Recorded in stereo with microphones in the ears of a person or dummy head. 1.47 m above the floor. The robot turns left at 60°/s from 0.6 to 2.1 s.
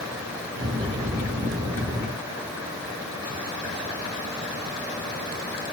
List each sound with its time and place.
Only background noise.